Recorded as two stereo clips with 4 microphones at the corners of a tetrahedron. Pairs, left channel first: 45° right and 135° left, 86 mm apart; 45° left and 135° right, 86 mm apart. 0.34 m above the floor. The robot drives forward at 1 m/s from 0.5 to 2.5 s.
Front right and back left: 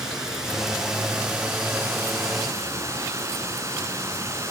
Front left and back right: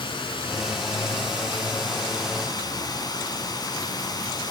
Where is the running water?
50° left, 4.5 m; by 4.5 s 80° left, 3.5 m.